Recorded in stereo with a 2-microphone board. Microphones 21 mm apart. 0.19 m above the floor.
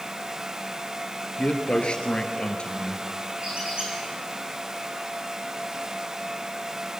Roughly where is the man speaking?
Left.